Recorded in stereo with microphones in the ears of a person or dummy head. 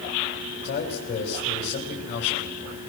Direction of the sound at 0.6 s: 55° left (ahead or behind).